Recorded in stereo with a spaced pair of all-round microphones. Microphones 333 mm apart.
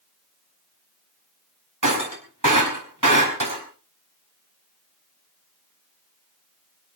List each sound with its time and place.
1.8 s breaking glass: 65° right (ahead or behind), 4.5 m